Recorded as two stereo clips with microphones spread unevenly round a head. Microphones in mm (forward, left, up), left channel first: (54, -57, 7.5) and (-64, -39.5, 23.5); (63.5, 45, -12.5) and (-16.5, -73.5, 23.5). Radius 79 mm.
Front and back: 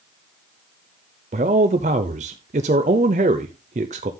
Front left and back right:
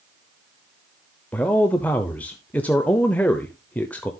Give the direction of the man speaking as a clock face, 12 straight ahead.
8 o'clock.